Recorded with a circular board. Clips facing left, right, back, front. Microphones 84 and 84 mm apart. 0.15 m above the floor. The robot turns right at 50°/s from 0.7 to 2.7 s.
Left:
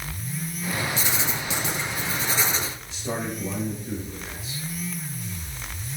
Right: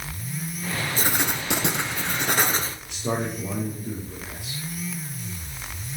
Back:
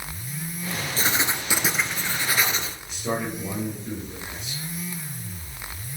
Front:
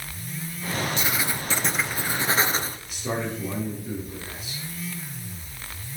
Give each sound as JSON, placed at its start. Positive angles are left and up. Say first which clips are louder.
{"t": 1.0, "sound": "writing", "louder": "right 2 dB, back 2 dB", "azimuth_deg": -130, "distance_m": 0.9}
{"t": 2.9, "sound": "a man speaking", "louder": "right 4 dB, back 2 dB", "azimuth_deg": -85, "distance_m": 3.5}